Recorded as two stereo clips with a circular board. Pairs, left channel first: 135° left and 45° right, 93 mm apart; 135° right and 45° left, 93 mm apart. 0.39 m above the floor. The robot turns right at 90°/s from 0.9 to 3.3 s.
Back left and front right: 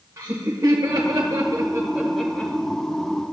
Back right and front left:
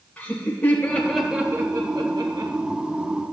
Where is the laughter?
70° right, 1.6 m; by 2.5 s 75° left, 1.6 m.